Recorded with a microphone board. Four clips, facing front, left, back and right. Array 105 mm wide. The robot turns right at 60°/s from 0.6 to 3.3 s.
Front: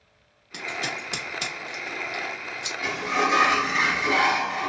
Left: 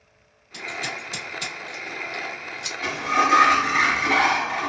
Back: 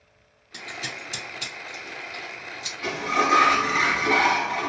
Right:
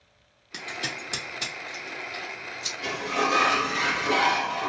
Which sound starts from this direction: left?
A sliding door, at 2.8 s.